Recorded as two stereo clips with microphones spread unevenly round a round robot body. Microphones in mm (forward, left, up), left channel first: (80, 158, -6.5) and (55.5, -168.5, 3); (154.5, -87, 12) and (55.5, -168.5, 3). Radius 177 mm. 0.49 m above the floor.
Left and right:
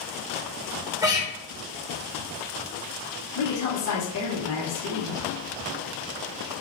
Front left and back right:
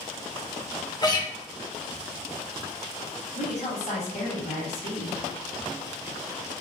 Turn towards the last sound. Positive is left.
turn(degrees=65)